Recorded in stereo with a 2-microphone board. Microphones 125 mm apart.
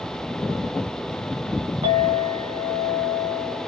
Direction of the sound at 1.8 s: 65° right (ahead or behind).